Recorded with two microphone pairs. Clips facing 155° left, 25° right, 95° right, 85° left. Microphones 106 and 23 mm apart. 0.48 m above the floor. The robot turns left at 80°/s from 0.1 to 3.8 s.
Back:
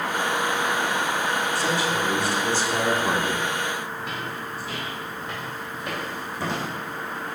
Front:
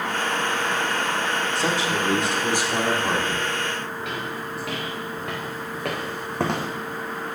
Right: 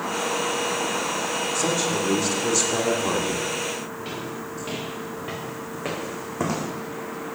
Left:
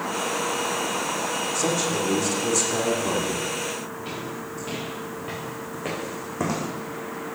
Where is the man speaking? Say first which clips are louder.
Even, even; 5° left, 1.0 m; by 3.5 s 150° right, 1.0 m.